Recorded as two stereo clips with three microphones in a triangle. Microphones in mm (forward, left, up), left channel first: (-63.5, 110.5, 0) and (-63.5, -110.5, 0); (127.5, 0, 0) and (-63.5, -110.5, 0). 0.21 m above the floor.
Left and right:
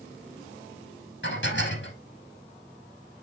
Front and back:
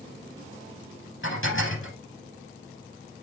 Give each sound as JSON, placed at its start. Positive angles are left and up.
{"t": 1.2, "sound": "dishes clattering", "azimuth_deg": 60, "distance_m": 5.5}